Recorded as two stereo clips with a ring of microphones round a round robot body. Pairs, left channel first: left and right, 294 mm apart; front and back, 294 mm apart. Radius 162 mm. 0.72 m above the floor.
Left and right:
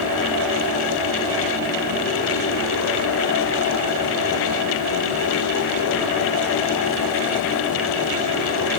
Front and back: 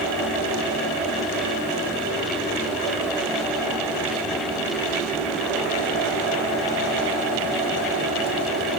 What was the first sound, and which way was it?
Only background noise.